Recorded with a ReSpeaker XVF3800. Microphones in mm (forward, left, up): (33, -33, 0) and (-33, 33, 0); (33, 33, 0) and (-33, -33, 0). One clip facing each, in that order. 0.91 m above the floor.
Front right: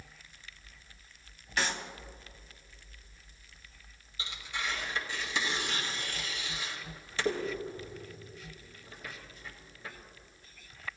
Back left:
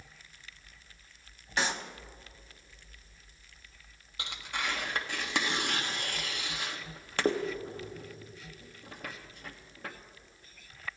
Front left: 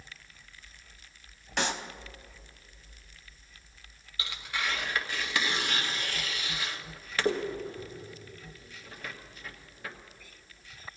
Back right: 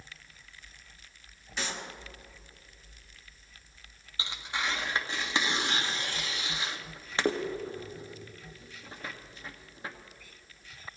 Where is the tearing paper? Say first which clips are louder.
Back left 2 dB, back right 1 dB; 160° left, 1.4 m.